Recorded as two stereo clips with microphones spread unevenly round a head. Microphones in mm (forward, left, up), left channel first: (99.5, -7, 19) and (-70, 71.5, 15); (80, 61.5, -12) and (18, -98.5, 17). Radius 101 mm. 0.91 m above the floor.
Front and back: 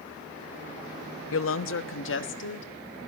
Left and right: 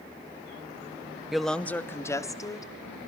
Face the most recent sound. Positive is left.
turn(degrees=0)